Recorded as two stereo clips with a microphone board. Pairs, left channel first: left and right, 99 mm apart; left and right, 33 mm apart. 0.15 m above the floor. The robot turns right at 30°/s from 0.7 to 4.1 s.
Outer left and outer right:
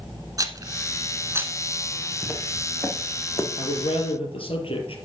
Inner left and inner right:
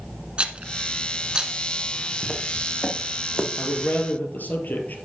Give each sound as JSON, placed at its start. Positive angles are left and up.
{"t": 0.4, "sound": "a rattle", "side_deg": -35, "distance_m": 1.2}
{"t": 2.2, "sound": "footsteps", "side_deg": 10, "distance_m": 3.5}
{"t": 3.6, "sound": "a man speaking", "side_deg": 70, "distance_m": 3.5}